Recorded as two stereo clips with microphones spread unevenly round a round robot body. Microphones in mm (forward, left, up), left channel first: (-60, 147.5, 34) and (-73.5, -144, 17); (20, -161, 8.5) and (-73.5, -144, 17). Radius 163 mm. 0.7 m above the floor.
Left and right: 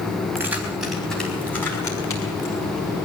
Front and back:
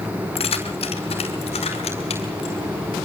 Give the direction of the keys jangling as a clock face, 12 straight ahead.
12 o'clock.